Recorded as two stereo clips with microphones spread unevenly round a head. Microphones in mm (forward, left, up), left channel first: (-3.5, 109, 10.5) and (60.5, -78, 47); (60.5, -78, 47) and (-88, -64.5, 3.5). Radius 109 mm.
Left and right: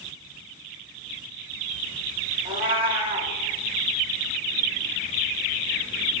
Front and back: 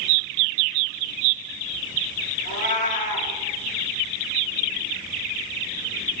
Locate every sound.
2.5 s a cat meowing: 15° right, 1.8 m